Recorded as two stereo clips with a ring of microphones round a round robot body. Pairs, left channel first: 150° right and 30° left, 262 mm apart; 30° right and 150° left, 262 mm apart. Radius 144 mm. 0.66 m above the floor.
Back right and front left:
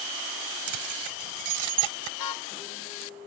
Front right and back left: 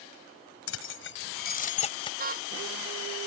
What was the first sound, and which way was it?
Keys jangling, 10° left.